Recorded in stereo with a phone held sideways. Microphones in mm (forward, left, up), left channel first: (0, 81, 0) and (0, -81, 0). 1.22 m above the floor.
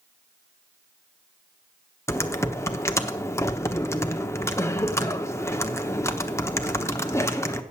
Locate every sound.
2.1 s typing on a keyboard: 15° left (ahead or behind), 0.8 m